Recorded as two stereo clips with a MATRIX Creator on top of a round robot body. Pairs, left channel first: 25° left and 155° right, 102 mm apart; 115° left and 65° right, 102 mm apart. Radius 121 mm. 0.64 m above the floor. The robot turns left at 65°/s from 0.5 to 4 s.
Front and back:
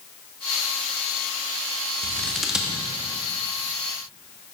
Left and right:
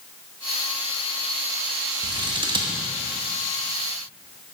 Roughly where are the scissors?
Ahead right.